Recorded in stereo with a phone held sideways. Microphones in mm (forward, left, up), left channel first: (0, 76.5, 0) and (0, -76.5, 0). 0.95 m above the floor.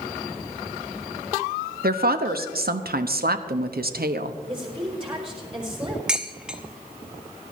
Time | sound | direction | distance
1.8 | a woman speaking | 75° right (ahead or behind) | 0.8 m
4.5 | a woman speaking | 35° right (ahead or behind) | 4 m
6.1 | dishes clattering | 5° right (ahead or behind) | 0.9 m